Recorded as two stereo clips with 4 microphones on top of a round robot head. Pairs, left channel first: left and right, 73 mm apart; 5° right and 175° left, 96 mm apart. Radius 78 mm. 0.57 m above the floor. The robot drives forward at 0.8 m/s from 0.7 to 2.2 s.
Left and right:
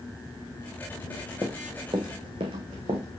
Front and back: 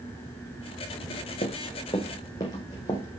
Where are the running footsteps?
25° right, 1.5 m; by 3.0 s 65° right, 3 m.